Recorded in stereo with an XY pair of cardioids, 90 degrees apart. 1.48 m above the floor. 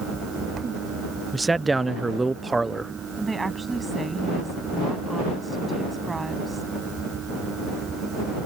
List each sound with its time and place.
0.0 s a fan: 55° right
1.3 s a man speaking: 25° right
3.2 s a woman speaking: 25° right